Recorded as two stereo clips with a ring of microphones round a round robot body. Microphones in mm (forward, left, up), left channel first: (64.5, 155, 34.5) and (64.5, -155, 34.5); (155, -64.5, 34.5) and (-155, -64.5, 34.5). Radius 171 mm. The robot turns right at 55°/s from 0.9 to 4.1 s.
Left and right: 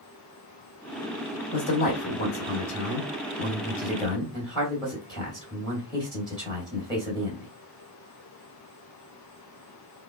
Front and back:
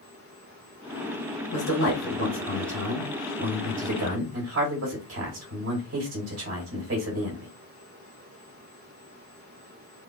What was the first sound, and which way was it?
A man speaking, 20° left.